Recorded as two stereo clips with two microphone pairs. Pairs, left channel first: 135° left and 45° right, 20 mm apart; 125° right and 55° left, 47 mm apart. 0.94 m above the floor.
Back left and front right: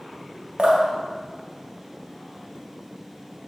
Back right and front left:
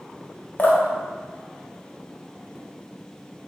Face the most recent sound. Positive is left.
turn(degrees=-75)